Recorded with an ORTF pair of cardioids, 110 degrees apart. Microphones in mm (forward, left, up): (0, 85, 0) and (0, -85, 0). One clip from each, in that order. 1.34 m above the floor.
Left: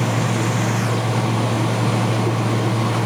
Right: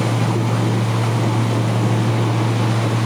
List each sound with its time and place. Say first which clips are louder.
0.0 s a fan: even; 60° left, 2.5 m